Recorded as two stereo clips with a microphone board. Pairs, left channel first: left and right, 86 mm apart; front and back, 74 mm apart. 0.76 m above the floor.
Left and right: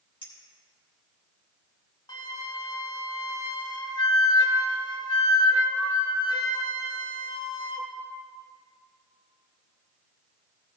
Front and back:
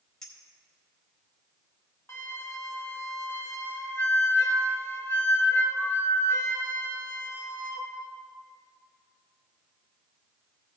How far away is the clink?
About 2.5 m.